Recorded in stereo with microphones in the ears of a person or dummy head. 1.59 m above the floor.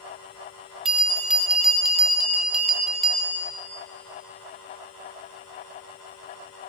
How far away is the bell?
About 1.2 m.